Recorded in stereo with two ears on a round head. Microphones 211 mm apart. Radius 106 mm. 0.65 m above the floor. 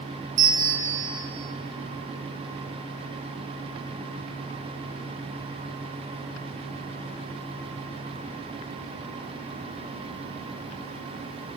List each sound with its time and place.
0.4 s a bell: 35° right (ahead or behind), 1.1 m